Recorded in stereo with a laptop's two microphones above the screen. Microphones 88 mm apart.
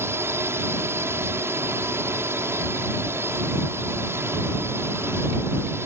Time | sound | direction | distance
0.0 | a drone | 30° right (ahead or behind) | ?